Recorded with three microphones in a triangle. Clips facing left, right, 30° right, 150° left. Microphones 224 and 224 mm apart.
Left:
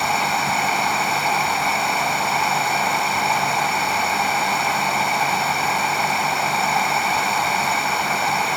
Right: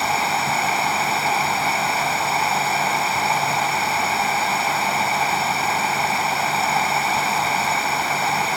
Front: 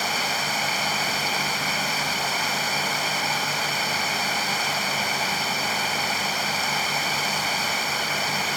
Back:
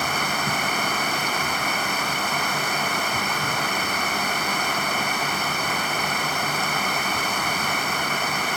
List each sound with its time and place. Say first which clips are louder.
0.0 s running water: left 1 dB, back 3 dB; straight behind